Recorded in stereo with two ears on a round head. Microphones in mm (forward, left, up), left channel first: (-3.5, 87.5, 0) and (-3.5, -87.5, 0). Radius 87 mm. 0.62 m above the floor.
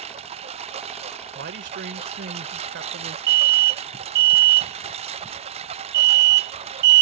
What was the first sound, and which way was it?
A lawn mower, 35° right (ahead or behind).